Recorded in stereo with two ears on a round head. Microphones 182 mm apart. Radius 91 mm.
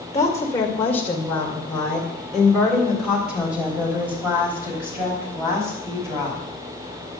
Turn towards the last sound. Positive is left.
turn(degrees=-15)  # may be behind; listen again after turning